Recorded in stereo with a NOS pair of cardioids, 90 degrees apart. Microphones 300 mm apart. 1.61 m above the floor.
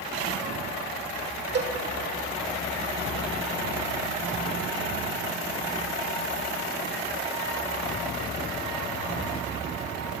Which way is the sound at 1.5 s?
35° right.